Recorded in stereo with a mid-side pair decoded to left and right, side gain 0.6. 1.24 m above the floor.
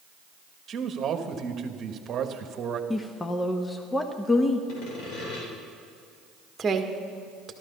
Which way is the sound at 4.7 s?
65° left.